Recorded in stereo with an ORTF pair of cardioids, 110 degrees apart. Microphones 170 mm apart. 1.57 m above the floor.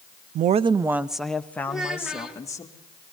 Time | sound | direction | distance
0.3 | a woman speaking | 65° right | 0.5 m
1.7 | a child speaking | 5° right | 2 m